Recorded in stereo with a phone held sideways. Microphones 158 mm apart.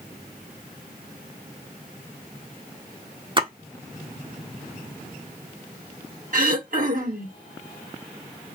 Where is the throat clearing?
60° right (ahead or behind), 1.5 m.